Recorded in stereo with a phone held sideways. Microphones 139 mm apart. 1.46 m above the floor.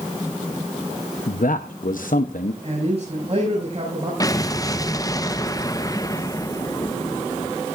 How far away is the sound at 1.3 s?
About 0.8 m.